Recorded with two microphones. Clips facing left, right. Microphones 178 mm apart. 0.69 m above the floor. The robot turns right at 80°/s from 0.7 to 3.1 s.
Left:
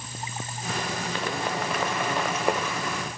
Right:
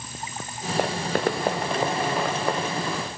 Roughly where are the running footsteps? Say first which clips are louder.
Right 9 dB; right.